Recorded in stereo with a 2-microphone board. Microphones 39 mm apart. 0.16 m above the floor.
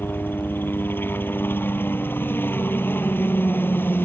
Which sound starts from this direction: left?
A helicopter, at 0.0 s.